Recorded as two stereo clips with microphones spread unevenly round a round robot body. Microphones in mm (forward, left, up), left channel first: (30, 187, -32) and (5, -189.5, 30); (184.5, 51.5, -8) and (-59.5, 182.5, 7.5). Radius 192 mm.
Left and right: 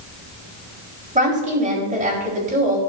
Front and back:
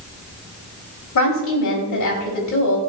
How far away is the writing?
I don't hear writing.